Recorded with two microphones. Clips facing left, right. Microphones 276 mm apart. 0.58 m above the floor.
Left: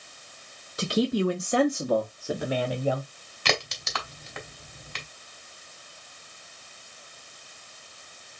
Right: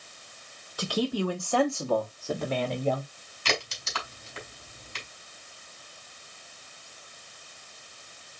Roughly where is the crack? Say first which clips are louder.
Left 3 dB; left.